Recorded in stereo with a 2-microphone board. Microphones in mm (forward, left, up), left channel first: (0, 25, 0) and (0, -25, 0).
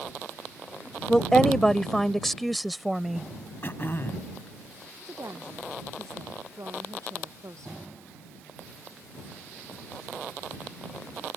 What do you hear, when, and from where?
1.1 s a woman speaking: 15° left (ahead or behind); by 3.3 s 5° right (ahead or behind)
3.6 s throat clearing: 45° left (ahead or behind)
5.0 s a woman speaking: 75° right (ahead or behind)